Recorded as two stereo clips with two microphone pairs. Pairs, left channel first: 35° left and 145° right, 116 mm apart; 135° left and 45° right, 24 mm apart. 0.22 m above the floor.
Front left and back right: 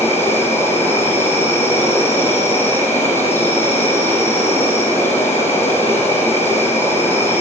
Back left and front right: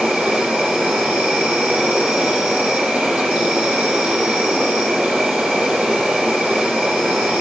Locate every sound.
0.0 s an insect: 35° right, 8 m